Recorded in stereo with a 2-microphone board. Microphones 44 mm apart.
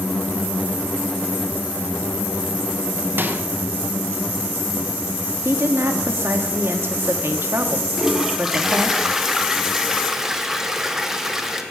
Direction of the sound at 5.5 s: 65° right (ahead or behind).